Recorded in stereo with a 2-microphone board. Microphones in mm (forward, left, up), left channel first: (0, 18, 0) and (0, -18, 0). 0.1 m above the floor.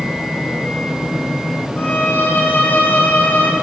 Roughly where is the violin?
Left.